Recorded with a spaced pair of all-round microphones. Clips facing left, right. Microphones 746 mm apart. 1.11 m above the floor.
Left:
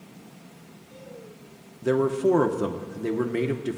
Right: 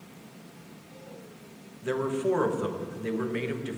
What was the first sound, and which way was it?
A man speaking, 65° left (ahead or behind).